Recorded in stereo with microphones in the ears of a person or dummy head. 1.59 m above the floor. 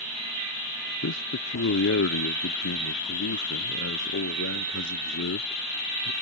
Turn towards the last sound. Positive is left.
turn(degrees=65)  # may be behind; listen again after turning